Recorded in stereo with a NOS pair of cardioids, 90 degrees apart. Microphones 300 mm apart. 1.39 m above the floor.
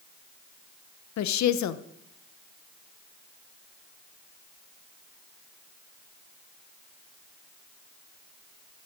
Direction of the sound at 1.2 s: 70° left.